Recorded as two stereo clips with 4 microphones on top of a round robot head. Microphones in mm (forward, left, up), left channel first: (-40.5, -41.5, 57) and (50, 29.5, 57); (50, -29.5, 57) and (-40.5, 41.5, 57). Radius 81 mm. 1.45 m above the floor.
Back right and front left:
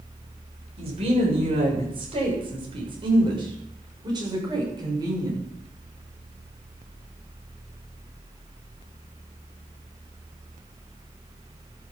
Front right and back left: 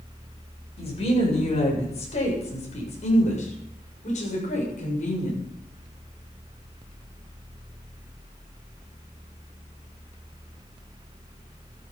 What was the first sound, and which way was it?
A woman speaking, straight ahead.